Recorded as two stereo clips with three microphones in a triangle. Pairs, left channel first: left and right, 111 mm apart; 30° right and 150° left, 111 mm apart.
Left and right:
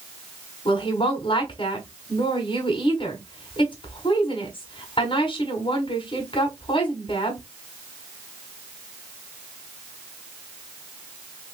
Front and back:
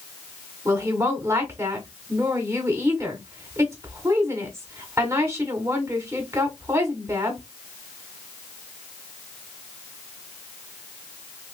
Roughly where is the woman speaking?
Left.